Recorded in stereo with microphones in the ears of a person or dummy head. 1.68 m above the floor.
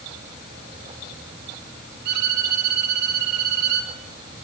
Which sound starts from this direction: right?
A violin, at 2.0 s.